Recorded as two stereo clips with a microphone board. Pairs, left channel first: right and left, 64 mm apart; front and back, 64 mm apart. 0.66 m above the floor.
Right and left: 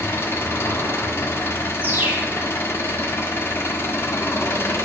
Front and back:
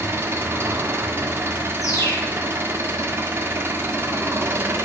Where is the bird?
30° left, 1.4 m.